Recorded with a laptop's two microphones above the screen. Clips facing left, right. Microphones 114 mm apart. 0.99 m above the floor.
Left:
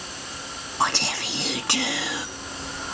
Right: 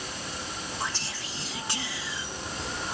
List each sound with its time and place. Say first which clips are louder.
0.8 s whispering: left 14 dB; 70° left (ahead or behind)